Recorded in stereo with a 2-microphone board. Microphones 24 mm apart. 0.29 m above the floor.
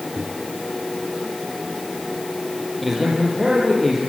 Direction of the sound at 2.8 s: 5° left (ahead or behind).